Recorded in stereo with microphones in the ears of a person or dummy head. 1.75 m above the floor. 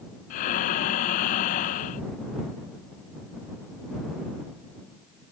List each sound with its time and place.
0.3 s breathing: 40° left (ahead or behind)